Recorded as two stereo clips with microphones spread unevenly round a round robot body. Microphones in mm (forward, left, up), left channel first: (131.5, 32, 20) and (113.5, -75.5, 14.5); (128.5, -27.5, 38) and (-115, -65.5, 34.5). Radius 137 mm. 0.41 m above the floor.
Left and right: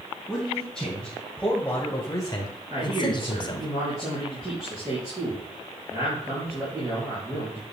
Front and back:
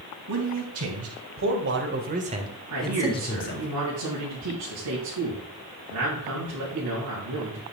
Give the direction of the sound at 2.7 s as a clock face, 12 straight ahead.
6 o'clock.